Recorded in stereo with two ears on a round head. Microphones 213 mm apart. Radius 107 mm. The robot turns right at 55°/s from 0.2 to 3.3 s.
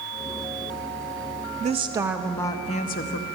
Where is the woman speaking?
35° right, 0.6 m; by 3.2 s 55° left, 0.6 m.